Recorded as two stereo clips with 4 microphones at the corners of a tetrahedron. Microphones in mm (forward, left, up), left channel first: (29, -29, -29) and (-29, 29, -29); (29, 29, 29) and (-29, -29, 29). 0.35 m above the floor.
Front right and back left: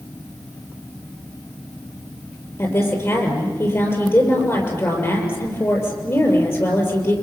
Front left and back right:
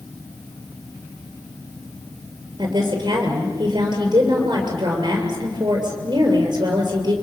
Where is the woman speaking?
105° right, 7 m.